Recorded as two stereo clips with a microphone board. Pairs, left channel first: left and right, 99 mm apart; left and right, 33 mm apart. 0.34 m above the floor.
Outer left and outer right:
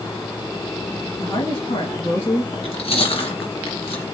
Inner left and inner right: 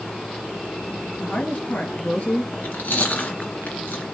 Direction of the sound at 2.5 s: 75° left (ahead or behind).